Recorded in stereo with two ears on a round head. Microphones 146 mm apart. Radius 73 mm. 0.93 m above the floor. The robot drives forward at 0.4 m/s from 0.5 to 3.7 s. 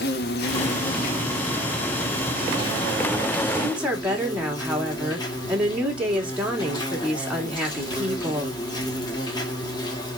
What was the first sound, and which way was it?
An insect, 70° left (ahead or behind).